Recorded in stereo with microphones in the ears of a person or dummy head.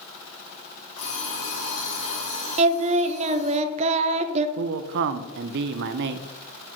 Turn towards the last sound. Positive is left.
turn(degrees=-60)  # may be behind; listen again after turning